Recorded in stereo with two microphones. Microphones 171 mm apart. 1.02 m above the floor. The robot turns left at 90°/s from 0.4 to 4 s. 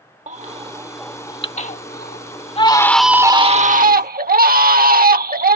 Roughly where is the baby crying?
Behind right.